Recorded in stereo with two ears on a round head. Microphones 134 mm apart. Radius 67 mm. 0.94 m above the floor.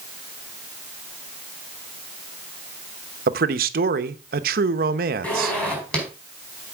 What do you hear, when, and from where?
3.3 s a man speaking: 60° right (ahead or behind), 0.9 m
5.2 s a zipper: 10° left (ahead or behind), 4.5 m